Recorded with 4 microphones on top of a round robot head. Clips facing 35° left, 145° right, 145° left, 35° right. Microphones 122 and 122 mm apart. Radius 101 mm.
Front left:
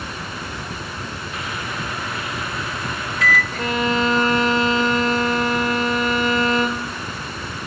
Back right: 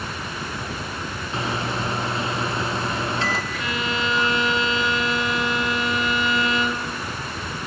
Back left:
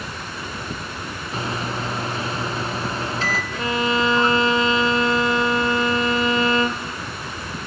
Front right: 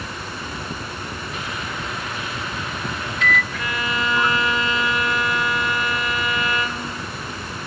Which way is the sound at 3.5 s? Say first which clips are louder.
Front left 6 dB, back left 5 dB; 80° left.